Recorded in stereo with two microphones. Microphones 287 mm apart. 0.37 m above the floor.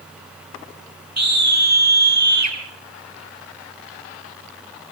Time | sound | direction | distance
1.2 | a scream | 65° right (ahead or behind) | 5 m